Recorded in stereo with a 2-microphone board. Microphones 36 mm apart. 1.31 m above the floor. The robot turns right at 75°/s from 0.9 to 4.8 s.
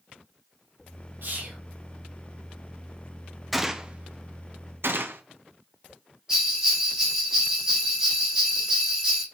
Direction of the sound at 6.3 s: 15° right (ahead or behind).